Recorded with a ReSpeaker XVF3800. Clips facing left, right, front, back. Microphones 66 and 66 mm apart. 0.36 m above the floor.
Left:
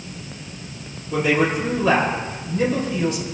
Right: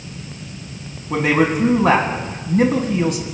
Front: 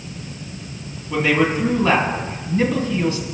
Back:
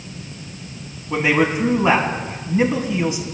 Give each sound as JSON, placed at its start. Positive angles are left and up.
{"t": 1.1, "sound": "a man speaking", "azimuth_deg": -110, "distance_m": 2.5}